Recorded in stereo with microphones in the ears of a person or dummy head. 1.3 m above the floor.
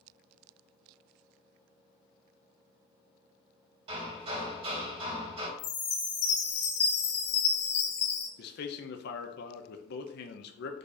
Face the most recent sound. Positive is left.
turn(degrees=60)  # may be behind; listen again after turning